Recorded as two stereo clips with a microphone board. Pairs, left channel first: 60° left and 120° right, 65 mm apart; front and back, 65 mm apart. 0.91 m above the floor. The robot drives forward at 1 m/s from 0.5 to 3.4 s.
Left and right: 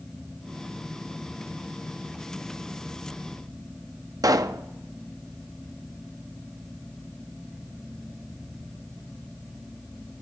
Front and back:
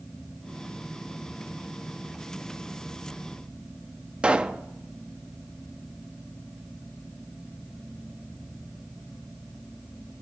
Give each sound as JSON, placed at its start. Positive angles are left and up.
{"t": 4.2, "sound": "a pop", "azimuth_deg": -105, "distance_m": 0.5}